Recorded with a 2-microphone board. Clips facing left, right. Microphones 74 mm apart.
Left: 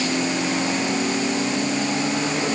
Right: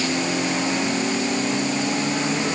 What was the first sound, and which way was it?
Only background noise.